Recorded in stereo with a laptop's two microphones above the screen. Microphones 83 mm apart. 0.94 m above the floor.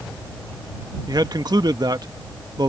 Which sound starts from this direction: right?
A man speaking, at 1.1 s.